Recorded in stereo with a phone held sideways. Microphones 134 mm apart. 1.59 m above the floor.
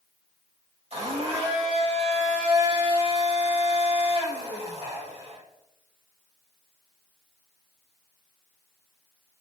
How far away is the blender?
About 4 m.